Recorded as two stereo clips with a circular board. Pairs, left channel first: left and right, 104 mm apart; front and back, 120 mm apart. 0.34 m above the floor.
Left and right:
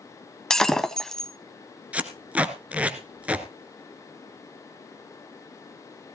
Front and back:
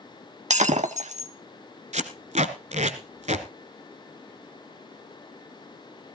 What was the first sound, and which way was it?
Breaking glass, 175° left.